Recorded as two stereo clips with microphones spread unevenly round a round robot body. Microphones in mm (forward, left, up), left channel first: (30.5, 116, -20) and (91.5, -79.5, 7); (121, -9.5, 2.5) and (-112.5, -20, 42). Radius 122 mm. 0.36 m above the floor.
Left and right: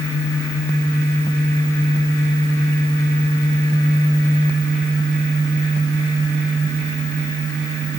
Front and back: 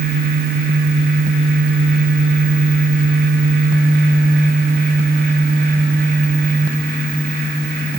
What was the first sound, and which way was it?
Only background noise.